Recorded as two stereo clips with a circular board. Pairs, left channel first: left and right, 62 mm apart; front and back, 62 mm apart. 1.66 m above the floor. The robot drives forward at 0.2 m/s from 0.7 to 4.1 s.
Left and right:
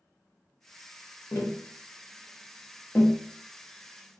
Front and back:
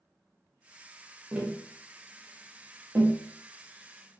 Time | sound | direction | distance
1.3 | tapping | 110° left | 0.6 m